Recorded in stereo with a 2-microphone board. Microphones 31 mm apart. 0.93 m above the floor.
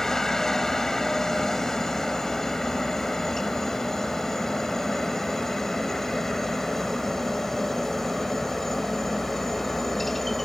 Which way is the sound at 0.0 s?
15° left (ahead or behind).